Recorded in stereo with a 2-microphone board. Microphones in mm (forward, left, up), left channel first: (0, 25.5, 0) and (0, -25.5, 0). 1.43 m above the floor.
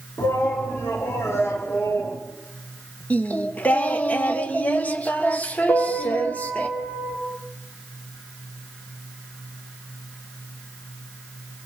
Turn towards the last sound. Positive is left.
turn(degrees=60)  # may be behind; listen again after turning